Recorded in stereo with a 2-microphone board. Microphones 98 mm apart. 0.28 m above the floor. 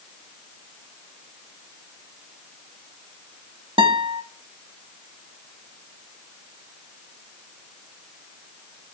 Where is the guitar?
60° right (ahead or behind), 0.7 m.